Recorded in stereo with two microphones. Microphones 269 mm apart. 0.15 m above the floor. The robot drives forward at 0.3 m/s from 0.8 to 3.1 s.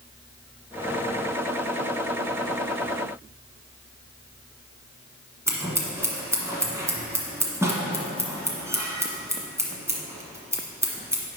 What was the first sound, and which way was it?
Scissors, 10° right (ahead or behind).